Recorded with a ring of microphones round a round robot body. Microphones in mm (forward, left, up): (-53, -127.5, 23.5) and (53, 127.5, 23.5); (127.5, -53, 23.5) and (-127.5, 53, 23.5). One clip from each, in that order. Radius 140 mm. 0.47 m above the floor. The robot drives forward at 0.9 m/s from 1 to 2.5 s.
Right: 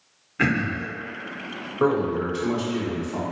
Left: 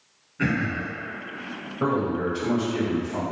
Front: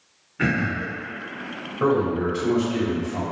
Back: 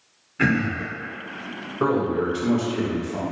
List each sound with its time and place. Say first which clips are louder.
0.4 s throat clearing: right 3 dB, back 1 dB; 130° right, 0.9 m
1.8 s a man speaking: right 3 dB, front 1 dB; 140° right, 1.9 m; by 3.2 s 150° right, 2.5 m